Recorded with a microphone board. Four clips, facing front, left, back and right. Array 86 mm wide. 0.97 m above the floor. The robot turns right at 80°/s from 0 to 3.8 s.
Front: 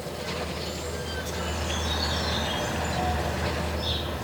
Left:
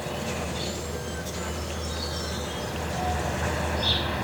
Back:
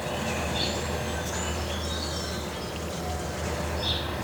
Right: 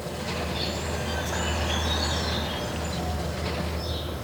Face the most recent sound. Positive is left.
turn(degrees=90)